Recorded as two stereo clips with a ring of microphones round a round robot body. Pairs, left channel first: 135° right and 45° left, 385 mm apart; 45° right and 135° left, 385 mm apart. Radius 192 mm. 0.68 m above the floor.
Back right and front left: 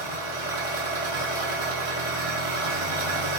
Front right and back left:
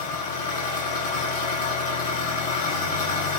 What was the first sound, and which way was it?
An engine running, 25° left.